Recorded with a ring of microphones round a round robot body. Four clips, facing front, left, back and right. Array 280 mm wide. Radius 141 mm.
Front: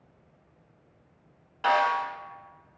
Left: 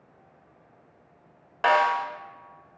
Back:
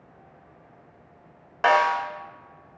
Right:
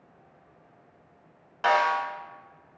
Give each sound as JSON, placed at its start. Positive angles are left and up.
{"t": 1.6, "sound": "a snare drum", "azimuth_deg": 150, "distance_m": 1.0}